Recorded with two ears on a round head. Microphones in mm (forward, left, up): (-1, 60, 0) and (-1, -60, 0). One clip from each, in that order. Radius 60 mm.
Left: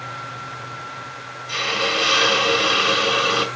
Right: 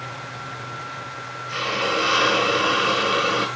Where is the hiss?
60° left (ahead or behind), 3.5 m.